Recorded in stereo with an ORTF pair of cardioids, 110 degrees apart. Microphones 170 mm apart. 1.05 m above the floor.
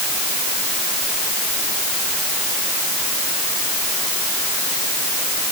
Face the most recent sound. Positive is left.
No sound to turn to.